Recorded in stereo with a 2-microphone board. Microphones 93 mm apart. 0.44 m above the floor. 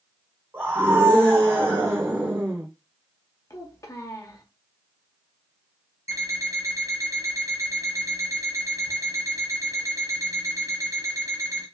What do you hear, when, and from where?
0.5 s a scream: 25° right (ahead or behind), 0.9 m
3.5 s a child speaking: 35° left (ahead or behind), 1.1 m
6.1 s an alarm clock: 35° right (ahead or behind), 1.5 m